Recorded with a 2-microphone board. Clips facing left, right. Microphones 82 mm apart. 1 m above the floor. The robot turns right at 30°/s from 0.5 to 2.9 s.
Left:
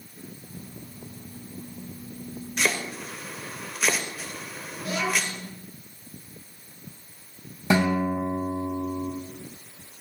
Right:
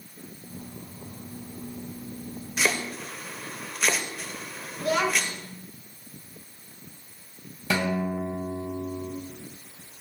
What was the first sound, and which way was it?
Chopping, 5° right (ahead or behind).